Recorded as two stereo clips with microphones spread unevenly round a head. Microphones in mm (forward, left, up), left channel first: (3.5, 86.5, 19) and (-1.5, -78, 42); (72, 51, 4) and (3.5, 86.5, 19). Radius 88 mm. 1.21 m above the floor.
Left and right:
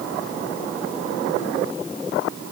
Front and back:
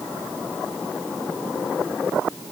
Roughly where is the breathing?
I don't hear breathing.